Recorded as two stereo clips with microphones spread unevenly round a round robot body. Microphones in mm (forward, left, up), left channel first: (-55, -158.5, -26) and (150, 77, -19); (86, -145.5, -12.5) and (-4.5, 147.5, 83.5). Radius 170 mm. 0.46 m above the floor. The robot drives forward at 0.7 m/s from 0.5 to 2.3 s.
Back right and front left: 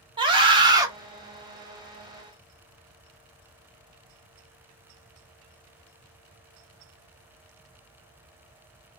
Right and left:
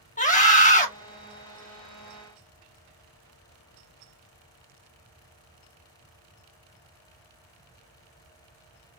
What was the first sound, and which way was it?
A scream, 25° right.